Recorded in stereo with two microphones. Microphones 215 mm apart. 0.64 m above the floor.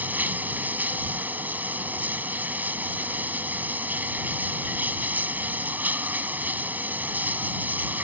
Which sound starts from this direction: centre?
Running water, at 0.0 s.